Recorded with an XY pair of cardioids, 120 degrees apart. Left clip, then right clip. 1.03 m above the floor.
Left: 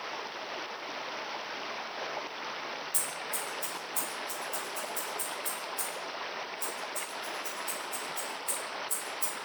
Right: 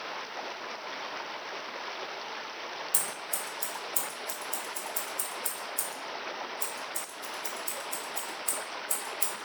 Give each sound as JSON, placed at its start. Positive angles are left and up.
{"t": 2.9, "sound": "scissors", "azimuth_deg": -45, "distance_m": 0.8}